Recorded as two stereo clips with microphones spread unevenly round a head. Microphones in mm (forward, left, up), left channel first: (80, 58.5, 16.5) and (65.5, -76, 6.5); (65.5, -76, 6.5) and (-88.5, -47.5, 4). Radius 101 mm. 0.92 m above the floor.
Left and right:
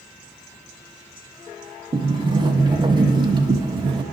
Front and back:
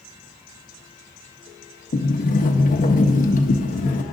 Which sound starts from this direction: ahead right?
A sliding door, at 1.9 s.